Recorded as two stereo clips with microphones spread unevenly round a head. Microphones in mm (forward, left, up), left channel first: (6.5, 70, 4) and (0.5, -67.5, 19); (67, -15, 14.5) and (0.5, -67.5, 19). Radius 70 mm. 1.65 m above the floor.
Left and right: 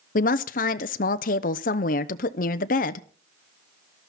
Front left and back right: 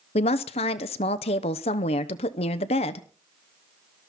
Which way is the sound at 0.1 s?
55° left.